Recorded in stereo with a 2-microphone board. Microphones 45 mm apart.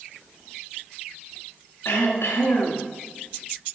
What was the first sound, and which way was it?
Throat clearing, 70° left (ahead or behind).